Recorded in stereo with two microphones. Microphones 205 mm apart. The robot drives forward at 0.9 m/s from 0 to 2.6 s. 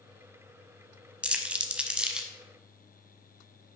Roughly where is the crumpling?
Centre.